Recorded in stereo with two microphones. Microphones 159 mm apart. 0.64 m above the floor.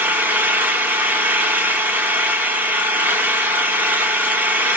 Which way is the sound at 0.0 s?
10° right (ahead or behind).